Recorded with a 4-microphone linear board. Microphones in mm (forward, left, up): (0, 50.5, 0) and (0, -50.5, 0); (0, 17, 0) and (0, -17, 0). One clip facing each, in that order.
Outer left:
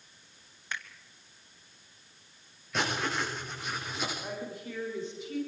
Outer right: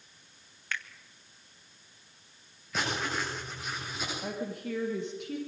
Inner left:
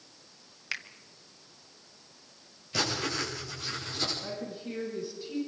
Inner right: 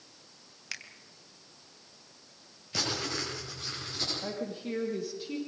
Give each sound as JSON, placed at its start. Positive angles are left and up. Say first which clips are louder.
{"t": 0.7, "sound": "a finger snap", "louder": "outer right 1 dB, inner left 5 dB", "side_deg": 20, "distance_m": 1.4}
{"t": 2.7, "sound": "writing", "louder": "outer left 1 dB, inner left 2 dB", "side_deg": 0, "distance_m": 9.5}
{"t": 4.2, "sound": "a woman speaking", "louder": "outer right 3 dB, inner right 2 dB", "side_deg": -65, "distance_m": 8.5}